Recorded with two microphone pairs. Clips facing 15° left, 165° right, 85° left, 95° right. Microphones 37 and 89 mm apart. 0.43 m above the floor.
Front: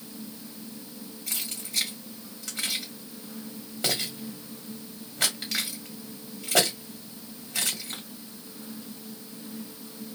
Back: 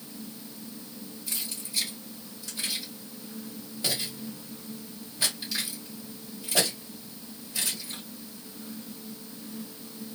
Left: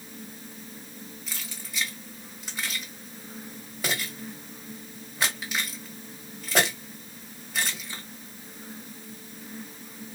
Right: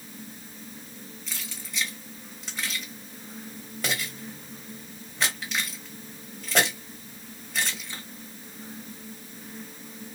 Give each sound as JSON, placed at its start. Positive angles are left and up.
{"t": 1.3, "sound": "keys jangling", "azimuth_deg": 5, "distance_m": 1.7}